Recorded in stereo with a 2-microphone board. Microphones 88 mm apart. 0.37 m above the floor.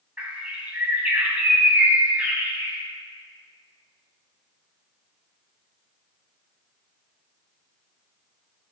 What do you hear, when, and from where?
0.2 s a bird: 15° right (ahead or behind), 2.5 m